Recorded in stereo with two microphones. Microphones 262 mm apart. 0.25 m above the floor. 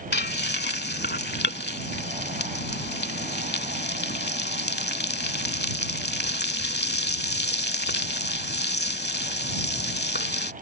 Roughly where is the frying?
Left.